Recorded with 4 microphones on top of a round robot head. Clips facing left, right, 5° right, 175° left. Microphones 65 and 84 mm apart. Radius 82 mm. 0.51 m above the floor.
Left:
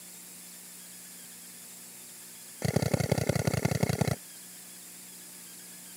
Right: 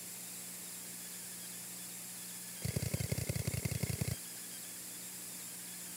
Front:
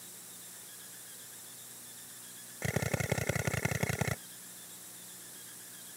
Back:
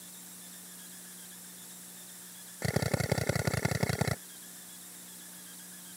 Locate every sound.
2.6 s a drill: 100° left